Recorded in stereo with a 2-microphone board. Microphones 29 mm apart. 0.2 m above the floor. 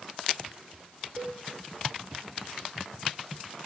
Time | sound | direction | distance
1.2 | a cowbell | 40° right (ahead or behind) | 5 m